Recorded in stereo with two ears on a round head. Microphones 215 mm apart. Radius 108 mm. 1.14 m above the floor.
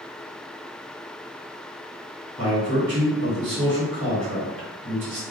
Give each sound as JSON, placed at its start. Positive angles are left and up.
{"t": 2.4, "sound": "a man speaking", "side_deg": -55, "distance_m": 1.3}